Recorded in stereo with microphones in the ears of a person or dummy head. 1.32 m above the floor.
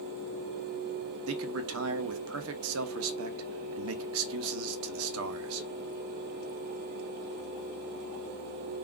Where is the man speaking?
70° right (ahead or behind), 0.6 m.